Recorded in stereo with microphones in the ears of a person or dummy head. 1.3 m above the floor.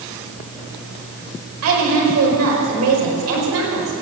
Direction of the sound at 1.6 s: 85° right.